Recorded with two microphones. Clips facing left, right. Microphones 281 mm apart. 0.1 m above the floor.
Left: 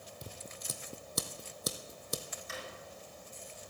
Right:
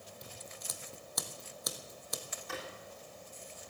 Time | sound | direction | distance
0.2 | scissors | 35° left (ahead or behind) | 1.1 m
2.5 | a drawer | 65° right (ahead or behind) | 3.5 m